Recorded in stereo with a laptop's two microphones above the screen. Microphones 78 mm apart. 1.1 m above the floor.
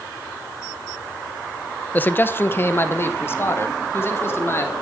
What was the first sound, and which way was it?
A man speaking, 25° left (ahead or behind).